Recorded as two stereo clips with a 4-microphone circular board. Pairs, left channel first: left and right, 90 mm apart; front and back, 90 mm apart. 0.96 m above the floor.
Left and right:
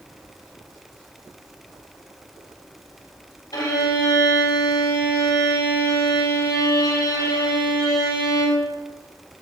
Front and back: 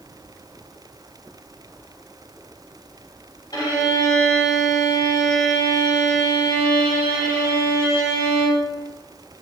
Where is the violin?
45° left, 3.5 m.